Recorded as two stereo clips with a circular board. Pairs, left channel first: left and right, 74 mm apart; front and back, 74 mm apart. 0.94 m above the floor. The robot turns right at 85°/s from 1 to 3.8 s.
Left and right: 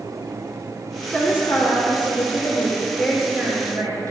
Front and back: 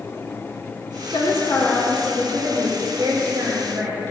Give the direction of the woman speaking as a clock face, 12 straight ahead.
12 o'clock.